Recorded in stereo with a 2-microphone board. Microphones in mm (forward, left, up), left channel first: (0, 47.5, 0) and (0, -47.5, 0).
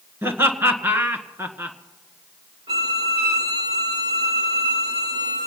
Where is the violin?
75° right (ahead or behind), 3 m.